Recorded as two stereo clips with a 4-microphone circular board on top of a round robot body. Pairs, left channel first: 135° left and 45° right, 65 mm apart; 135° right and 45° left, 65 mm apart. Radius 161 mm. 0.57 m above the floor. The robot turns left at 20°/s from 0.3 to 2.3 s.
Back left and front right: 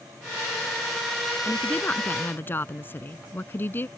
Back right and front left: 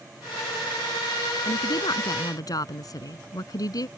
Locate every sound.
1.4 s a woman speaking: 150° right; by 3.9 s 165° right